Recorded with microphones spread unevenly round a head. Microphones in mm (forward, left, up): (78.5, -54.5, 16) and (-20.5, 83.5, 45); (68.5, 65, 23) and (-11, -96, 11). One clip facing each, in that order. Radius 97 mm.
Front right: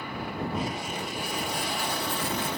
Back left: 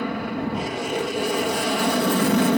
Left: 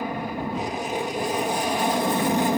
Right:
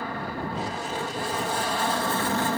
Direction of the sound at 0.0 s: 135° left.